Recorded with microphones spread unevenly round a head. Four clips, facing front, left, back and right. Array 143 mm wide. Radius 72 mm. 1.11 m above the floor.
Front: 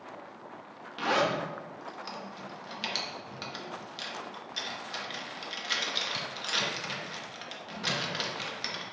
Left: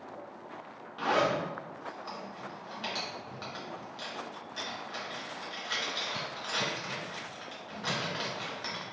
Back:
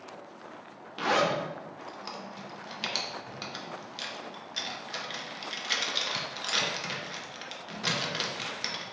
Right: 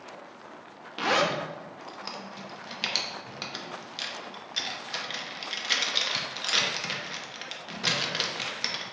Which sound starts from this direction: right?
A zipper, at 1.0 s.